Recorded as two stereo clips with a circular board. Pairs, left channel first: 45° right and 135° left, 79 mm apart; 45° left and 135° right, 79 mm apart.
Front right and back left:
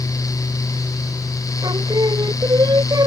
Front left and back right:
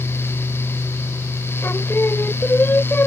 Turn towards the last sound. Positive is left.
turn(degrees=105)